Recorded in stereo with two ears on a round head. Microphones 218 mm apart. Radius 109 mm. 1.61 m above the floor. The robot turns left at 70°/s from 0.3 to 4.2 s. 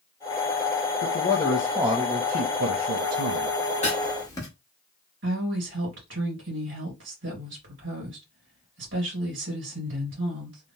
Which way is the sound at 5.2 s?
50° right (ahead or behind).